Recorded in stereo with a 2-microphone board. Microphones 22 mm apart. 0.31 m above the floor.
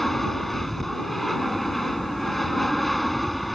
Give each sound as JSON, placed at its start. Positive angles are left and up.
{"t": 0.0, "sound": "an aircraft", "side_deg": 10}